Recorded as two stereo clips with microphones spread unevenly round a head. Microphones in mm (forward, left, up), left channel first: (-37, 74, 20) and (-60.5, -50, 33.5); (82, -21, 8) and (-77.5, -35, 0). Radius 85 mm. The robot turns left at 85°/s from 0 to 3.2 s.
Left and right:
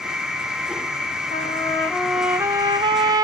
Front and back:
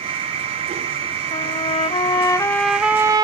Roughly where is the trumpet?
Ahead left.